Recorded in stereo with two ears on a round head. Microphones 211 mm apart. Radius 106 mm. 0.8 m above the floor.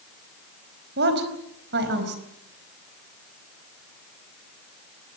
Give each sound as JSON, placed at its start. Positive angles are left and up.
{"t": 1.0, "sound": "a woman speaking", "side_deg": -45, "distance_m": 4.5}